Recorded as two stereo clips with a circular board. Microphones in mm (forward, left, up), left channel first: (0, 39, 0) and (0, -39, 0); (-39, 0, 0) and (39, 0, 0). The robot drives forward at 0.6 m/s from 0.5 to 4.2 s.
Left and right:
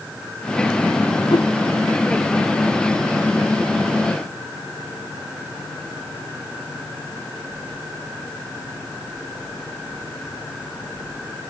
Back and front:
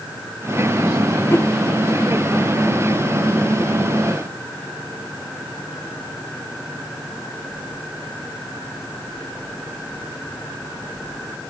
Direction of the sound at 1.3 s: 115° left.